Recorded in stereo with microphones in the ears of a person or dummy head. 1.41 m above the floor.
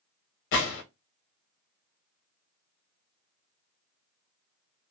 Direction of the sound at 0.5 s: 50° left (ahead or behind).